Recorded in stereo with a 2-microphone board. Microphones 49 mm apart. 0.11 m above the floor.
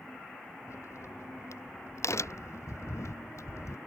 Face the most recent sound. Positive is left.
turn(degrees=80)